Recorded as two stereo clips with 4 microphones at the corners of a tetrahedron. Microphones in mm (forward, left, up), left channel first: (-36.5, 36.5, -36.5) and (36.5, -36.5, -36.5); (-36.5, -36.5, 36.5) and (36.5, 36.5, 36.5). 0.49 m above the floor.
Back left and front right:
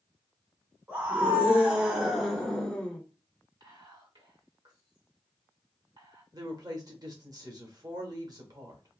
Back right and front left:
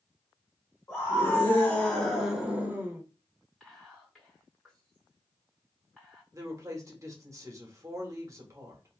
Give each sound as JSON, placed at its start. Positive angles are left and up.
{"t": 0.9, "sound": "a scream", "azimuth_deg": -100, "distance_m": 1.1}
{"t": 3.6, "sound": "whispering", "azimuth_deg": -45, "distance_m": 2.0}
{"t": 6.3, "sound": "a woman speaking", "azimuth_deg": -5, "distance_m": 1.1}